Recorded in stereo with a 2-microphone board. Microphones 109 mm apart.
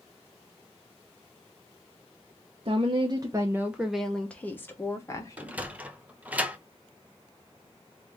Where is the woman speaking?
60° right (ahead or behind), 0.8 m; by 5.6 s 35° left (ahead or behind), 1.4 m.